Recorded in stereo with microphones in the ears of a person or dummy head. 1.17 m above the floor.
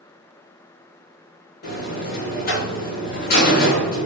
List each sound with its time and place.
1.6 s a buzzer: 50° left (ahead or behind), 0.9 m